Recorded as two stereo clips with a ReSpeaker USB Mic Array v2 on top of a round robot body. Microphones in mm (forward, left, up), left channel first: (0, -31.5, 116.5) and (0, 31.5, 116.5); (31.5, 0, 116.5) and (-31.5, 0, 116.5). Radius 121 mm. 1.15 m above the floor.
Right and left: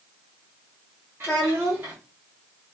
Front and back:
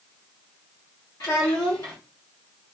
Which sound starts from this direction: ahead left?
A child speaking, at 1.2 s.